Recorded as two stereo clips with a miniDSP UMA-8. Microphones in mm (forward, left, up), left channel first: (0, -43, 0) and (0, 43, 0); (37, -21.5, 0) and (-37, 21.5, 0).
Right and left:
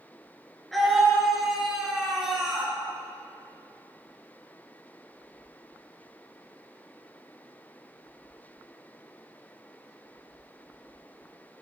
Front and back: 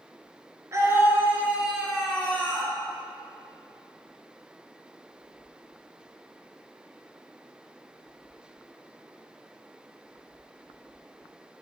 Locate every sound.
0.7 s a scream: straight behind, 2 m; by 2.7 s 15° left, 2 m